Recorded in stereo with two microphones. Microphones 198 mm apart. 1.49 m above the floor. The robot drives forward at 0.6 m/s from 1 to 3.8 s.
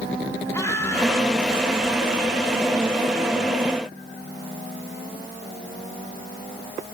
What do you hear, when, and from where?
0.5 s laughter: 15° left (ahead or behind), 5 m